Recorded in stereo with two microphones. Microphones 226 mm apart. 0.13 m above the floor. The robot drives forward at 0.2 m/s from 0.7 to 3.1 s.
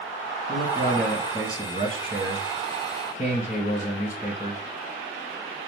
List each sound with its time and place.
0.5 s a man speaking: 35° left (ahead or behind), 1.9 m